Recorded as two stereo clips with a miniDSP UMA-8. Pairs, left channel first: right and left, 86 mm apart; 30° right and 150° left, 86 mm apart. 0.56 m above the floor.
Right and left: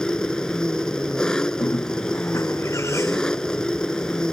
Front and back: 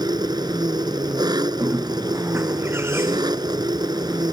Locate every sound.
0.0 s an engine running: 175° right
1.6 s a bird: 150° right